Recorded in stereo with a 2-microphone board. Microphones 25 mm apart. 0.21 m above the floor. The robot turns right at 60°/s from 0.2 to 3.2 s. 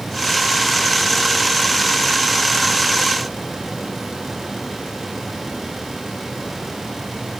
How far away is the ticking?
I don't hear ticking.